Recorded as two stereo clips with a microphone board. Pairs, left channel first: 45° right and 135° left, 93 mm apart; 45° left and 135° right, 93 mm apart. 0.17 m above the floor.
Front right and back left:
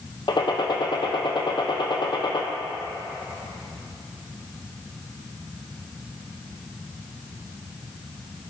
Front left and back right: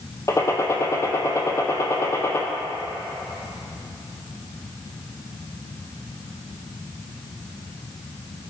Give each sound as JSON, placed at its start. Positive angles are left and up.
{"t": 0.3, "sound": "a gunshot", "azimuth_deg": -15, "distance_m": 1.2}